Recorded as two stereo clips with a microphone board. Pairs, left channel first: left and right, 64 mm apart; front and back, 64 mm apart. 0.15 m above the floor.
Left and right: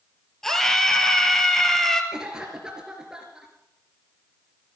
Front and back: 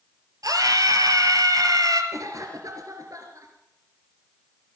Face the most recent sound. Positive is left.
turn(degrees=-170)